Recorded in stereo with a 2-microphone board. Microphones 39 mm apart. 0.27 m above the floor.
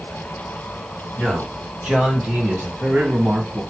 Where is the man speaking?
30° right (ahead or behind), 3 m; by 3.6 s 50° right (ahead or behind), 2.5 m.